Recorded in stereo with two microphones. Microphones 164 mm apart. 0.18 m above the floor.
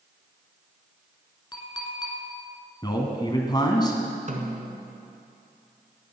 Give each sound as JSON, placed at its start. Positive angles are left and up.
{"t": 1.5, "sound": "a clink", "side_deg": 25, "distance_m": 1.7}
{"t": 2.8, "sound": "a man speaking", "side_deg": 25, "distance_m": 1.5}
{"t": 4.3, "sound": "a snare drum", "side_deg": -50, "distance_m": 1.3}